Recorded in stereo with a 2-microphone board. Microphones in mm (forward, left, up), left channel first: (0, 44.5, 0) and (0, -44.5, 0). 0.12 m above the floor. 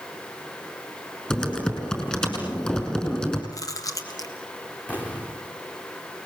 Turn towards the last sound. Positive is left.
turn(degrees=15)  # may be behind; listen again after turning